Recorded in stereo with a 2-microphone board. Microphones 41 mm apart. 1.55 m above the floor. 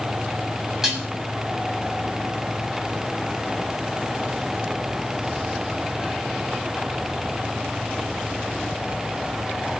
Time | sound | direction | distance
0.8 | dishes clattering | 10° right (ahead or behind) | 7 m